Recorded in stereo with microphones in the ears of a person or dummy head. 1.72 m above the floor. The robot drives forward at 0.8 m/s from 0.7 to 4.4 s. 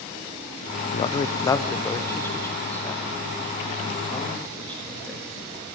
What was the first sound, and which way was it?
A man speaking, 30° left (ahead or behind).